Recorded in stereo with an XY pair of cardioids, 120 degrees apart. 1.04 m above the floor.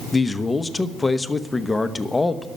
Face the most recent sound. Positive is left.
turn(degrees=20)